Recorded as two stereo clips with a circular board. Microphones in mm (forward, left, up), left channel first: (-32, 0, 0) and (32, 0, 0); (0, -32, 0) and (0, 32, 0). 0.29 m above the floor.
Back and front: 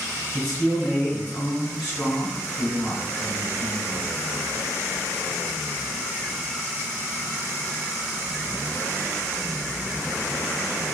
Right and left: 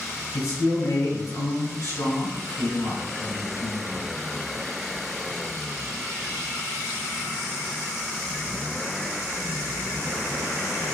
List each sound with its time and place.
0.3 s a man speaking: 95° right, 3.5 m